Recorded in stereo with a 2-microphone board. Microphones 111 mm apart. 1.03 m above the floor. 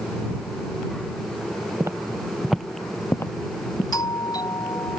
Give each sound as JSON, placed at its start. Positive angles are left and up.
{"t": 1.8, "sound": "footsteps", "side_deg": -25}
{"t": 3.9, "sound": "a doorbell", "side_deg": 35}